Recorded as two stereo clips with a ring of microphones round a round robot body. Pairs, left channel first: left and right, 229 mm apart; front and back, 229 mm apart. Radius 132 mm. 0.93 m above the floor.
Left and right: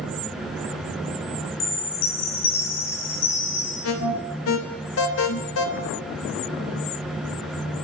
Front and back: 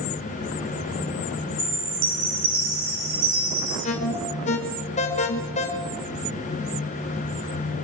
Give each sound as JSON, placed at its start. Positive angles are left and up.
{"t": 1.6, "sound": "a chime", "azimuth_deg": 135, "distance_m": 6.5}
{"t": 3.8, "sound": "an alarm", "azimuth_deg": 65, "distance_m": 2.0}